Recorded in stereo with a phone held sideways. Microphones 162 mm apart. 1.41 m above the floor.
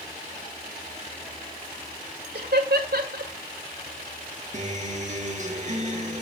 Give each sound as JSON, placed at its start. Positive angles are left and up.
{"t": 2.4, "sound": "laughter", "side_deg": -80, "distance_m": 1.6}
{"t": 4.5, "sound": "a guitar", "side_deg": -50, "distance_m": 1.4}